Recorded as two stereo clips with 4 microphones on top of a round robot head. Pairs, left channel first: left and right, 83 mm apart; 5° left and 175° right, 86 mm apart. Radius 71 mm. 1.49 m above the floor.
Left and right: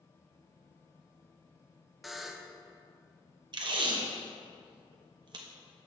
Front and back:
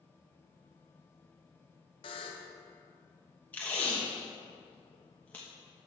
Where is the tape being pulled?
70° right, 1.0 m.